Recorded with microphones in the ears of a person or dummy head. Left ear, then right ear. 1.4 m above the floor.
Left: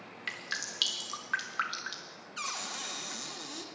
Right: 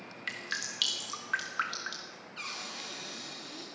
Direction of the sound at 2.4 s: 35° left (ahead or behind).